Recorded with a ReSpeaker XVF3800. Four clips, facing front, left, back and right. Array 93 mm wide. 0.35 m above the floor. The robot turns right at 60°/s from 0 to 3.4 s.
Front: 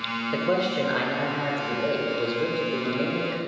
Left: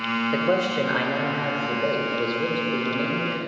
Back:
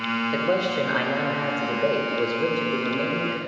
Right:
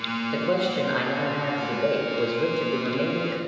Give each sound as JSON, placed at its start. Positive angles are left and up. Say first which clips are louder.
{"t": 0.3, "sound": "a man speaking", "louder": "left 1 dB, even", "azimuth_deg": 95, "distance_m": 0.8}